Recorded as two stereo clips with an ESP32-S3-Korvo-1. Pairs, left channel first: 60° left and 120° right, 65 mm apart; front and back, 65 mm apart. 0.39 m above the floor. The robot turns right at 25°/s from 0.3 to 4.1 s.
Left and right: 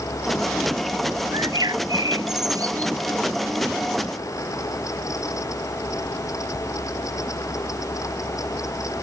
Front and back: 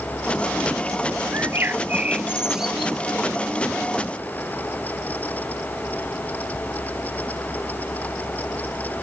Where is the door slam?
No door slam in this recording.